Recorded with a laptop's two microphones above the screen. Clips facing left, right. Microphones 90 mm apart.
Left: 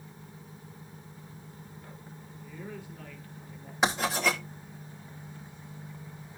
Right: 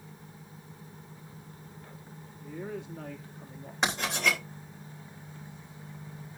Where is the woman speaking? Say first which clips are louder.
Right 5 dB; 80° right, 2.5 m.